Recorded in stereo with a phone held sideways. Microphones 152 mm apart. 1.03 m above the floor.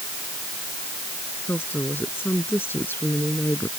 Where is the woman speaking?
15° left (ahead or behind).